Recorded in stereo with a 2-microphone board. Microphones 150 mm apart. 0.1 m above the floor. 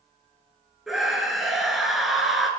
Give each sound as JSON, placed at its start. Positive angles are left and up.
{"t": 0.9, "sound": "a scream", "side_deg": 0, "distance_m": 1.2}